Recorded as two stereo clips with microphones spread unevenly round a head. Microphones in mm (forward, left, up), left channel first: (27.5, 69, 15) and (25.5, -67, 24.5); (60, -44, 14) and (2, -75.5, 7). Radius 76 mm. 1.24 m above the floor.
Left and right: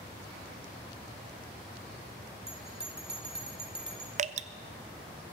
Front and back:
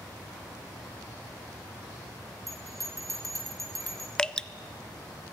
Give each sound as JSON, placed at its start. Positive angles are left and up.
{"t": 2.5, "sound": "a bell", "azimuth_deg": -140, "distance_m": 1.4}
{"t": 4.2, "sound": "dripping", "azimuth_deg": -50, "distance_m": 0.5}